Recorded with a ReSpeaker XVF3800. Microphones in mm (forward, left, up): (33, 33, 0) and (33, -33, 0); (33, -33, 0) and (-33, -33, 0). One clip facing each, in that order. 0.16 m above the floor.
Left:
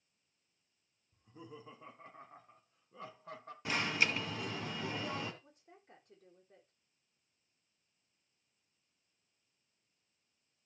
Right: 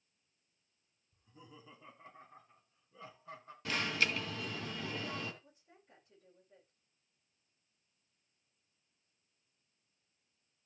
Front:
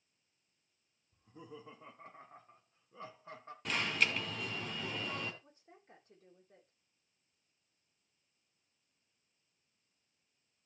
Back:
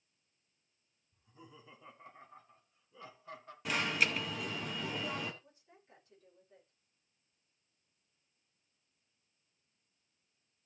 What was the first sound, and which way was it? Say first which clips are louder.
Laughter: left 6 dB, front 6 dB; 35° left.